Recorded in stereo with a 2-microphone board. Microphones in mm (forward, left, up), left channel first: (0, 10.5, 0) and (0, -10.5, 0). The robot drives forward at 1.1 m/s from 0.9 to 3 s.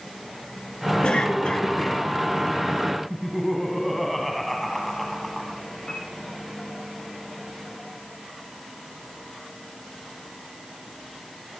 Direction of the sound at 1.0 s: 70° left (ahead or behind).